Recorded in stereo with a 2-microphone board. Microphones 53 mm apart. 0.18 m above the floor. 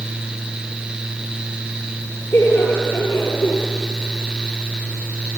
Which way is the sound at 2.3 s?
45° left (ahead or behind).